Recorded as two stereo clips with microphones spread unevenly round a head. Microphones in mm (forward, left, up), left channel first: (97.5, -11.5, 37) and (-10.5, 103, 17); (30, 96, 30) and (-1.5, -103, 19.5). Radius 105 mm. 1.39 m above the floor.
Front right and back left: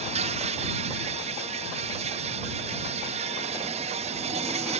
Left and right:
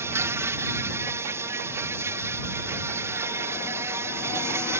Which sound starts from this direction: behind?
An insect, at 0.0 s.